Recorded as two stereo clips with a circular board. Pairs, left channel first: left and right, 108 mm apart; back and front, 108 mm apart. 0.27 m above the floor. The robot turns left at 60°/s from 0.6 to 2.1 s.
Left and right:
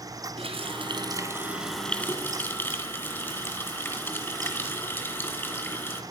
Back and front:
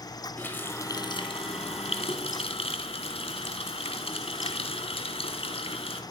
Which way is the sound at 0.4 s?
110° right.